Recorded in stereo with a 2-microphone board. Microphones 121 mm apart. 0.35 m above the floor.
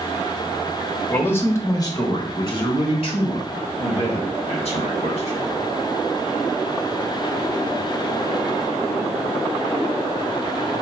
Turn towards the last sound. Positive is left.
turn(degrees=70)  # may be behind; listen again after turning